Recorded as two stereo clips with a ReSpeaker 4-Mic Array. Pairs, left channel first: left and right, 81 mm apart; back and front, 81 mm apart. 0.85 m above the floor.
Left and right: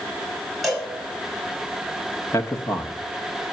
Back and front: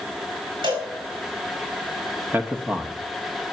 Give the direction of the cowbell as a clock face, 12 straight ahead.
12 o'clock.